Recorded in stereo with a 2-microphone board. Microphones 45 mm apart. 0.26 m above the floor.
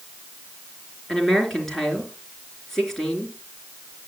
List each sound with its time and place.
1.1 s a woman speaking: 5° left (ahead or behind), 3.5 m